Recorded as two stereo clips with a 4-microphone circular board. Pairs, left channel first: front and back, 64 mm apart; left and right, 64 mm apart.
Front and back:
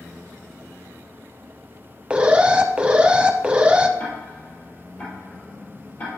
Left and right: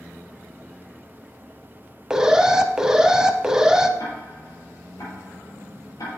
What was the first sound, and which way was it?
An alarm, 150° right.